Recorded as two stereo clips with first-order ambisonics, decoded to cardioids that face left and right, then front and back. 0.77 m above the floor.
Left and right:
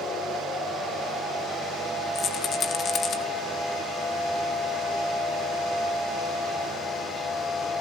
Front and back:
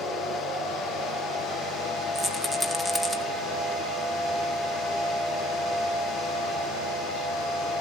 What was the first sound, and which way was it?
A rattle, 95° left.